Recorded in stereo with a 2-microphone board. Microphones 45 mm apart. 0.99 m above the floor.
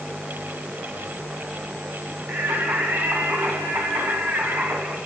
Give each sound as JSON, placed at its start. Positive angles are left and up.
{"t": 2.3, "sound": "singing", "side_deg": -60, "distance_m": 1.8}